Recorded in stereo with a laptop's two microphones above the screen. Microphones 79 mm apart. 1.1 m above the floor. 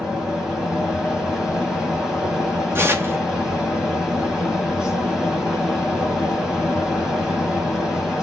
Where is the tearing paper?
30° right (ahead or behind), 0.7 m.